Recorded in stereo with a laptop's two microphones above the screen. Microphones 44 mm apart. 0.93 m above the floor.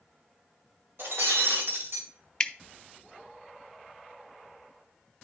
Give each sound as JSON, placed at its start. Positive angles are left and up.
{"t": 1.0, "sound": "breaking glass", "side_deg": -65, "distance_m": 2.0}
{"t": 2.4, "sound": "dripping", "side_deg": 20, "distance_m": 0.6}